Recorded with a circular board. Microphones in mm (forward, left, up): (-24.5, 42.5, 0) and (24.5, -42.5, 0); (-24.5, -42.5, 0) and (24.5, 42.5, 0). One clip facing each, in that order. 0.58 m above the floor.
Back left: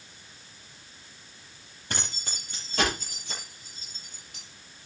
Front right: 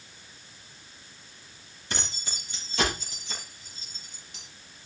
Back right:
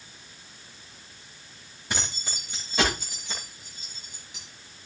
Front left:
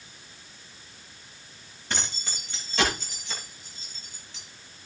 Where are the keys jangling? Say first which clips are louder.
Even, even; 160° left, 9 m; by 4.4 s 165° left, 7.5 m.